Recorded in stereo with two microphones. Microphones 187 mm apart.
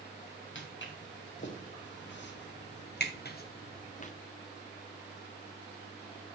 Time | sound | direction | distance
0.6 | footsteps | 85° left | 3 m